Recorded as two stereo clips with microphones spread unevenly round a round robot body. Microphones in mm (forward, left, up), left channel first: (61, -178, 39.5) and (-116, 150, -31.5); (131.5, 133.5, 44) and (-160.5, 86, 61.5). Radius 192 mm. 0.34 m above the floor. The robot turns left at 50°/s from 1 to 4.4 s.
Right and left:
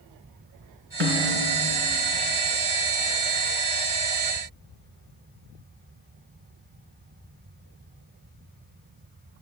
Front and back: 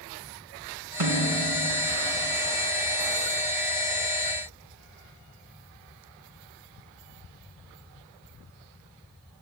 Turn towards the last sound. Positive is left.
turn(degrees=10)